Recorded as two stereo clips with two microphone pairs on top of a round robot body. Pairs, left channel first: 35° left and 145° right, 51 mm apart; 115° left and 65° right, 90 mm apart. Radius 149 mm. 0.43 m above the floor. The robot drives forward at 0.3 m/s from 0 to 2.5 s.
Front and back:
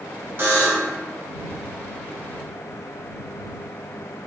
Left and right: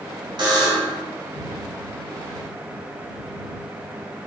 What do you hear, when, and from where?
0.4 s a buzzer: 105° right, 0.7 m; by 1.0 s 115° right, 0.8 m